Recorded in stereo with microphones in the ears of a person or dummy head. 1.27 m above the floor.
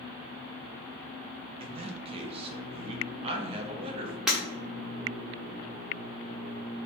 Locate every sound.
1.6 s a man speaking: 30° right (ahead or behind), 0.7 m
4.3 s breaking glass: 5° right (ahead or behind), 1.0 m